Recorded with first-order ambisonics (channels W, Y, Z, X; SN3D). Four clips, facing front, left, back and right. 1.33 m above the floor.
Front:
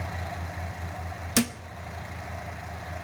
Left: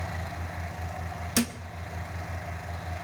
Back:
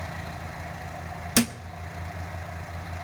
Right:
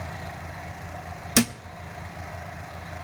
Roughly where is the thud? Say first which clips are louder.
Right 5 dB, back 2 dB; right.